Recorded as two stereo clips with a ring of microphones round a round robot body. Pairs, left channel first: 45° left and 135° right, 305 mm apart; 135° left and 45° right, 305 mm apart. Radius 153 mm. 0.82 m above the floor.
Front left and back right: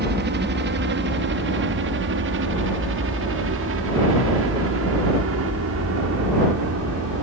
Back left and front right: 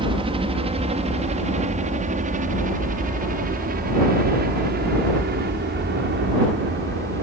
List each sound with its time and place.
0.0 s a helicopter: 110° right; by 7.2 s 95° right